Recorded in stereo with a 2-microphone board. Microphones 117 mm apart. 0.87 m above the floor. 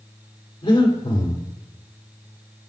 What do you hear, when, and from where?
0.6 s breathing: 45° left (ahead or behind), 3 m